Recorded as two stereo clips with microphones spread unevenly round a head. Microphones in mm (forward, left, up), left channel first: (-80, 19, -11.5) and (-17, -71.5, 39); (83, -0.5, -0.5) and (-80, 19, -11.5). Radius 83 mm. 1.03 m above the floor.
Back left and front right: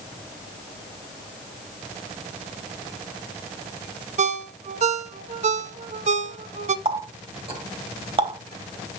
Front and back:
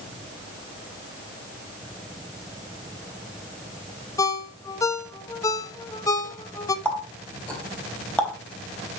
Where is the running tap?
90° right, 3.5 m.